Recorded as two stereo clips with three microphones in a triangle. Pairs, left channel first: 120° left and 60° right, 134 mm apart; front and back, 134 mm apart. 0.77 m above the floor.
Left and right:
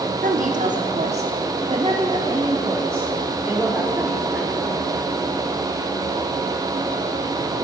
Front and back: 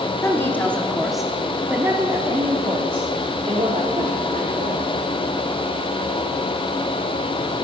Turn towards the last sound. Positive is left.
turn(degrees=-150)